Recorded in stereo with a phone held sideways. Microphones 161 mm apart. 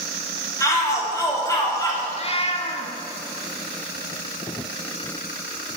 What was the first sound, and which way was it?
A shout, 20° left (ahead or behind).